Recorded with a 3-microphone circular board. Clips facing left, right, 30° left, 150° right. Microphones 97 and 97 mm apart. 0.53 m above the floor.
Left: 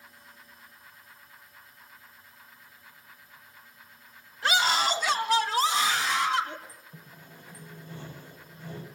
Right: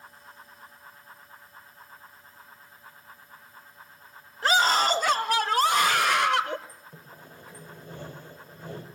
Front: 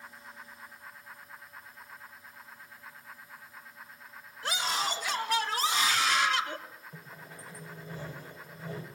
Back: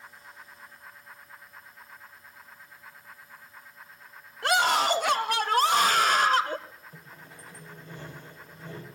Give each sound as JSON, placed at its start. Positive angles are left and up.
{"t": 4.4, "sound": "a scream", "azimuth_deg": -140, "distance_m": 2.5}
{"t": 6.9, "sound": "sawing", "azimuth_deg": -55, "distance_m": 4.0}